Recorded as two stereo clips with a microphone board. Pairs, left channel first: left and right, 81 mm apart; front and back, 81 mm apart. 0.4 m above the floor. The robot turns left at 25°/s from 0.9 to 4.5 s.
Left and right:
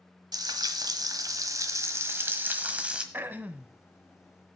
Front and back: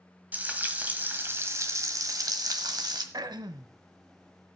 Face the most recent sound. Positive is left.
turn(degrees=175)